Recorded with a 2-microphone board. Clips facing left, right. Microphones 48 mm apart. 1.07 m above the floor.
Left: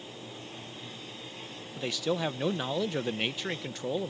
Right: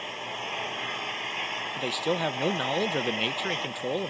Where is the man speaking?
10° right (ahead or behind).